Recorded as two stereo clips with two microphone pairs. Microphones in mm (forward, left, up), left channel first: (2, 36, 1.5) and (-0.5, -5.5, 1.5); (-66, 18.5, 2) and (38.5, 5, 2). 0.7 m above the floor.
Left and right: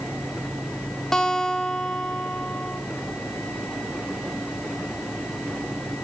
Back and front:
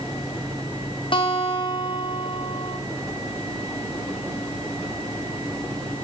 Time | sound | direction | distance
1.1 | a guitar | 165° left | 1.2 m